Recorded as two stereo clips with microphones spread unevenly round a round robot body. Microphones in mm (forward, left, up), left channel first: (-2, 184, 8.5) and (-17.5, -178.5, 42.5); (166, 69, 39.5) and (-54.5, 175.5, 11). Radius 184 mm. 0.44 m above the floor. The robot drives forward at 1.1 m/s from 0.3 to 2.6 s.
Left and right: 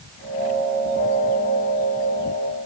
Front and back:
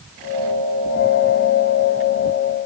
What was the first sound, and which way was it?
Only background noise.